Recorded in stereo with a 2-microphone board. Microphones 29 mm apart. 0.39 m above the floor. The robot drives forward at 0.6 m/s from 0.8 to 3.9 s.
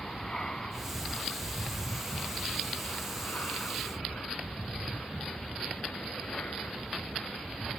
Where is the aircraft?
15° left (ahead or behind); by 7.8 s 70° left (ahead or behind).